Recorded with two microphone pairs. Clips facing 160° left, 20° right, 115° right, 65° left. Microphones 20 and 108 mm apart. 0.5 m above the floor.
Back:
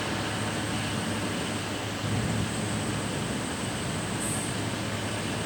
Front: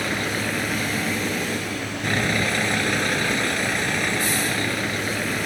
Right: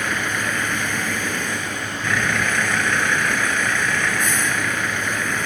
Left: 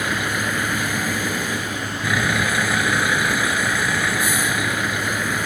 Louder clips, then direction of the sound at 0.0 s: Front 6 dB, left 1 dB; 15° right.